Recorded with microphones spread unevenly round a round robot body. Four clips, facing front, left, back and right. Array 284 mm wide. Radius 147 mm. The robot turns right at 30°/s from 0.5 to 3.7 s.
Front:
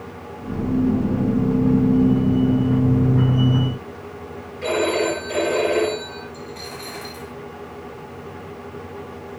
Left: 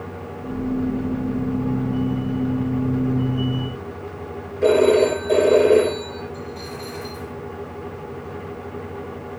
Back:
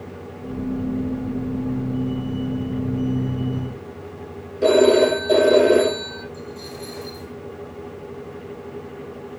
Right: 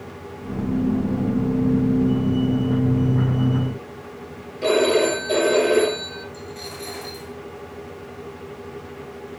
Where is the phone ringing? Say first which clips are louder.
Left 3 dB, back 7 dB; 165° left, 3.5 m.